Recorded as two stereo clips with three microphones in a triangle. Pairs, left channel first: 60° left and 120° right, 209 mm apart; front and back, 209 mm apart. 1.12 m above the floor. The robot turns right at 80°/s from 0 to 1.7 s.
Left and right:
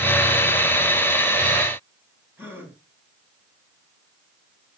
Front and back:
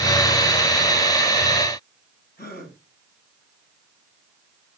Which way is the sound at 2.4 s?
40° right.